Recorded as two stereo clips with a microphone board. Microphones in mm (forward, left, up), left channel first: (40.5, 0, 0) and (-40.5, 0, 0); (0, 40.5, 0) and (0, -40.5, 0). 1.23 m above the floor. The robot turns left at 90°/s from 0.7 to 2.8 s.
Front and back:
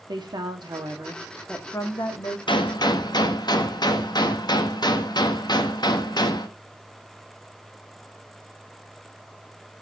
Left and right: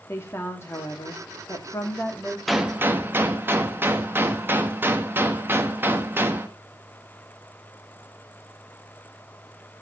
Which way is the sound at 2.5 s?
Straight ahead.